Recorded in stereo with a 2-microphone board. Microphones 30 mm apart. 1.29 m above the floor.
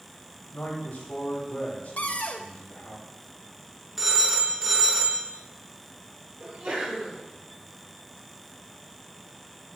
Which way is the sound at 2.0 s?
55° left (ahead or behind).